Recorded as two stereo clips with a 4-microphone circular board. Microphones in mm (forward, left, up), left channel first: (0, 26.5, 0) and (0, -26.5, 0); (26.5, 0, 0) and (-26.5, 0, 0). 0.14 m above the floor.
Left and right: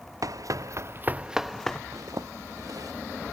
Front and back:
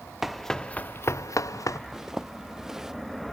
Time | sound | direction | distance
0.2 | running footsteps | 95° right | ?
1.9 | a zipper | 95° right | ?